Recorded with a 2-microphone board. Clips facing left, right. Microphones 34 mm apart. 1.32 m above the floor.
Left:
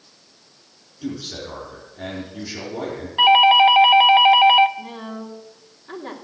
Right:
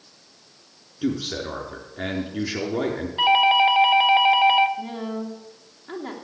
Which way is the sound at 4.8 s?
10° right (ahead or behind).